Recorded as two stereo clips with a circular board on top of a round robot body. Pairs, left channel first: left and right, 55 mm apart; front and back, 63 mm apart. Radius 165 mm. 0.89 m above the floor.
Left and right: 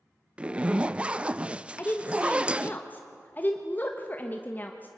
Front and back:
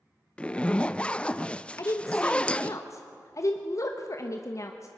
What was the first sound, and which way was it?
A zipper, 50° right.